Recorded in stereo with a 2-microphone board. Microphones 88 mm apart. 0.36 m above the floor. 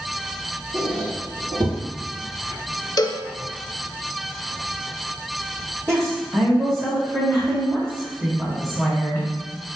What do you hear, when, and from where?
0.7 s a squeak: 55° right (ahead or behind), 1.8 m
3.0 s a cowbell: 50° left (ahead or behind), 0.5 m
5.9 s a woman speaking: 30° right (ahead or behind), 2 m